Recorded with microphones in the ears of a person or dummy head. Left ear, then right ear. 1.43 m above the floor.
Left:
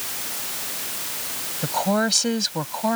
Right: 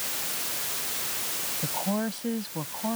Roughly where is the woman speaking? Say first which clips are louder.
Left 11 dB; left.